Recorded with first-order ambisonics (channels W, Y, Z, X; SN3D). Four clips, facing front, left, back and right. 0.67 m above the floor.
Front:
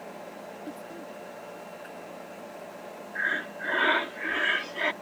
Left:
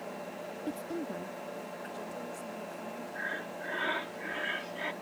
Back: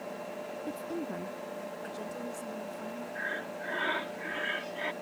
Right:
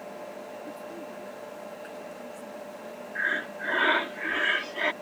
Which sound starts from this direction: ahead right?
Breathing, at 3.1 s.